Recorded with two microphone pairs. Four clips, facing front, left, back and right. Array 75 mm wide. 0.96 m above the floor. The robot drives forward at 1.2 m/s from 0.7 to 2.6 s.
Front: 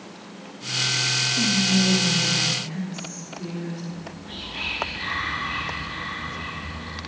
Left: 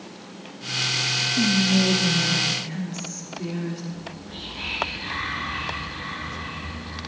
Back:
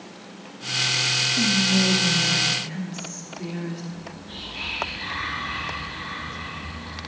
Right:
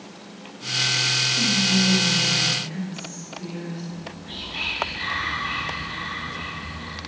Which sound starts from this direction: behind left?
Whispering, at 1.4 s.